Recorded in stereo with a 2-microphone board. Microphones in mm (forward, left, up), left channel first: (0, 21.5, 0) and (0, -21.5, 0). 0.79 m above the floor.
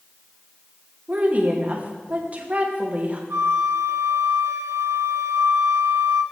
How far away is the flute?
About 0.6 m.